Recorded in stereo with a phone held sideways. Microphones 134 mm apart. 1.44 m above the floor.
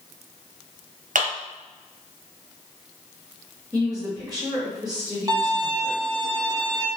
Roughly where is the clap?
Right.